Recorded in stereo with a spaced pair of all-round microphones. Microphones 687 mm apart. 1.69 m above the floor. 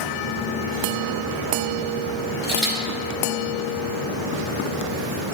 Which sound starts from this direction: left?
A camera shutter, at 2.4 s.